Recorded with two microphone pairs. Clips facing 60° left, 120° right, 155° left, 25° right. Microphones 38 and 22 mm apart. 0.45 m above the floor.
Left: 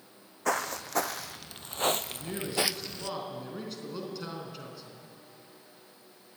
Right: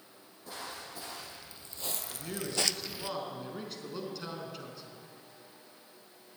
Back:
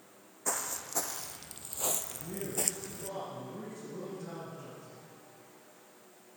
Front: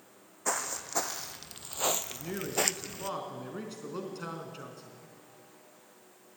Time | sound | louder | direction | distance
0.5 | footsteps | left 13 dB, front 3 dB | 50° left | 1.5 m
2.1 | a man speaking | left 3 dB, front 4 dB | 30° right | 4 m